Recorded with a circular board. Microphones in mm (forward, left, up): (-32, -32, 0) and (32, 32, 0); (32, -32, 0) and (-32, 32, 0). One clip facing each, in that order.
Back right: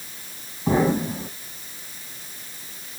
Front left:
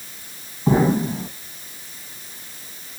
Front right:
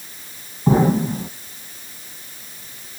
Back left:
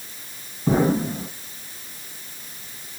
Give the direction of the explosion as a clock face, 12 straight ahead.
1 o'clock.